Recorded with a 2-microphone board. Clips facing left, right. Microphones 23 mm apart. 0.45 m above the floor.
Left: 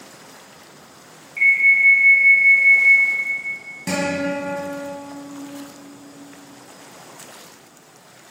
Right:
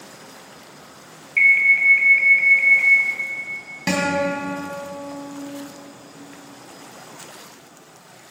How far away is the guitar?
About 2.5 m.